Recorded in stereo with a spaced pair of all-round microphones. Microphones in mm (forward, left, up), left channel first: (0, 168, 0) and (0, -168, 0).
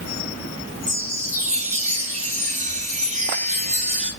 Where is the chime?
20° right (ahead or behind), 1.0 m.